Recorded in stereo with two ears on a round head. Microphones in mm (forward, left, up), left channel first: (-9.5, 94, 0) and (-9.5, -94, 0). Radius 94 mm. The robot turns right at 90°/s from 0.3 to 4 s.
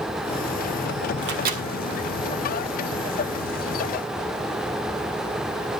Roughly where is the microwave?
Right.